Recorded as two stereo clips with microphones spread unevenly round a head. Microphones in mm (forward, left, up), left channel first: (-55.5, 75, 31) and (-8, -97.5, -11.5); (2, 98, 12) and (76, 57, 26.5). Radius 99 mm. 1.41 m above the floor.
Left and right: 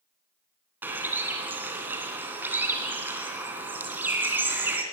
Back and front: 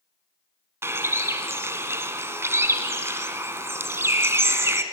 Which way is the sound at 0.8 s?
15° left.